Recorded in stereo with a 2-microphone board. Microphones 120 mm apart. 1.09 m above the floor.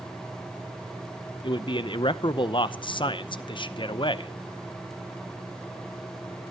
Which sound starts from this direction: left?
A man speaking, at 1.4 s.